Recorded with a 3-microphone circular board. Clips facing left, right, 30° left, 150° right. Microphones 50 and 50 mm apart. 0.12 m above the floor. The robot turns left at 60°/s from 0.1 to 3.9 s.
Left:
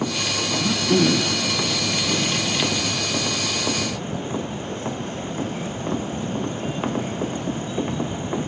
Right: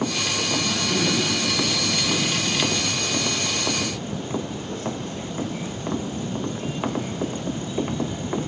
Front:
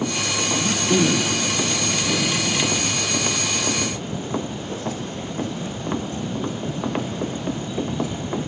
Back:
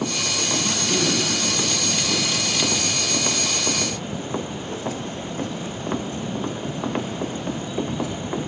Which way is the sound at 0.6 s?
110° left.